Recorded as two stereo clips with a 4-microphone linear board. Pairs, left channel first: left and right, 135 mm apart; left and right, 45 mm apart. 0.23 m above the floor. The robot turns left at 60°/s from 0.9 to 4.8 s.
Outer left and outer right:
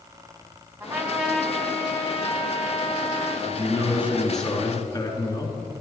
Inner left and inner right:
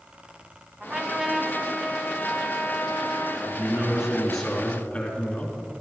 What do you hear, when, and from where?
0.8 s a trumpet: 150° right, 1.9 m; by 3.4 s 60° left, 1.9 m
3.5 s a man speaking: 130° right, 3.5 m; by 5.5 s 150° left, 3.5 m